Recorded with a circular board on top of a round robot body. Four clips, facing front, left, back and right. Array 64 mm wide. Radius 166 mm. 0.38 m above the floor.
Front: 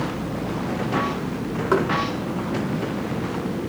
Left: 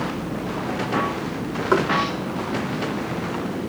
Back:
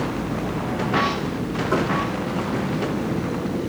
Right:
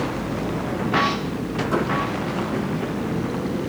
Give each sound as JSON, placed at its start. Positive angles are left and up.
{"t": 1.7, "sound": "knocking", "azimuth_deg": 50, "distance_m": 5.0}